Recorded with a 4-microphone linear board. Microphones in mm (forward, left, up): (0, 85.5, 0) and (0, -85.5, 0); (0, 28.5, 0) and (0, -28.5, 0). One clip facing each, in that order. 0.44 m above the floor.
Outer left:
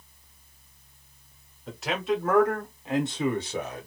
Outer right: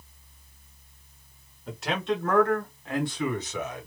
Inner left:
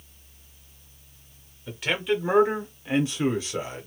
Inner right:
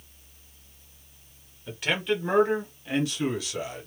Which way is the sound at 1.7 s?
Centre (ahead or behind).